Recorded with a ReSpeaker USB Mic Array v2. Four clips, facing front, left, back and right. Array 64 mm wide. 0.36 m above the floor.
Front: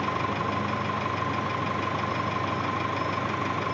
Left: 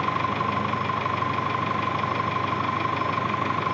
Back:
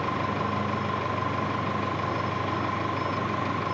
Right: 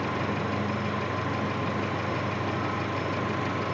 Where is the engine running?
80° left, 3 m.